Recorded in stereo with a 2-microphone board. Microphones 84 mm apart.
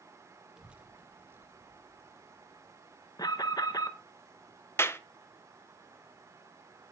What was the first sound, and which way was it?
A child speaking, 5° right (ahead or behind).